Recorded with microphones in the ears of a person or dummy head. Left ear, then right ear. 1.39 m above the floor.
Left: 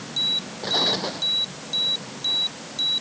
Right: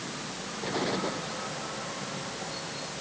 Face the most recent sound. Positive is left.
turn(degrees=35)  # may be behind; listen again after turning